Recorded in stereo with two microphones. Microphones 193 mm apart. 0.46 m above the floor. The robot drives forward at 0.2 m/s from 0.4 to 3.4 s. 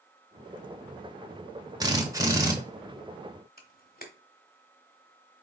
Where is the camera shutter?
50° left (ahead or behind), 0.9 m.